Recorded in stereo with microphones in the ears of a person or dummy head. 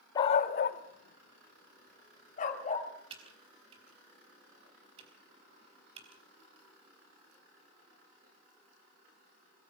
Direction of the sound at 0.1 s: 20° left (ahead or behind).